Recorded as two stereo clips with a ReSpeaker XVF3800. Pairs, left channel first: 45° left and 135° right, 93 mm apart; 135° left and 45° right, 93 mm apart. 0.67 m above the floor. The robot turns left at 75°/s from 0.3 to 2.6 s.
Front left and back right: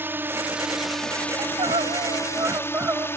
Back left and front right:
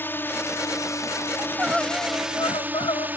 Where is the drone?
Straight behind; by 3.2 s 10° left.